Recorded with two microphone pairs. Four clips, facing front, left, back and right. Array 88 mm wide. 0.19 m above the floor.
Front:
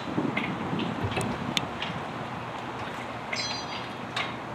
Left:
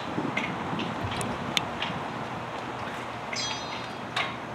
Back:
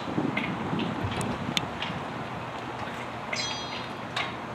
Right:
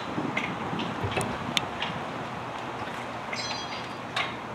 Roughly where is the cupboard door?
Ahead right.